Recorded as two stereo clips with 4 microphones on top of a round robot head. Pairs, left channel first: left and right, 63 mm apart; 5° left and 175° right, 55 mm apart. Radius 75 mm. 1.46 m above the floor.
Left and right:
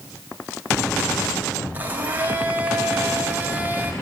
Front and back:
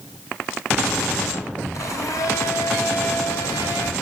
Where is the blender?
25° right, 4 m.